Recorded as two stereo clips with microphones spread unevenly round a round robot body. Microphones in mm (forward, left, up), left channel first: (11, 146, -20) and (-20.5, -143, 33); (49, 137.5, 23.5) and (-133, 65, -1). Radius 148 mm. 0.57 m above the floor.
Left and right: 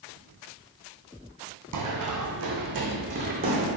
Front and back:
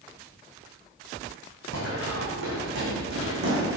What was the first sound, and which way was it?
Running footsteps, 120° right.